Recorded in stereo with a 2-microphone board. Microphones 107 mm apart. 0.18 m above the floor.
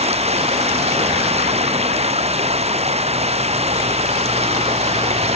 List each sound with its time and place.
0.0 s running water: 80° right